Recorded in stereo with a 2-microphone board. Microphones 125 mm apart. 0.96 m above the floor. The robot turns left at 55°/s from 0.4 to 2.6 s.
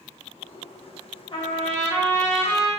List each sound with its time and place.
1.3 s a trumpet: 135° left, 1.0 m; by 2.7 s 65° left, 1.0 m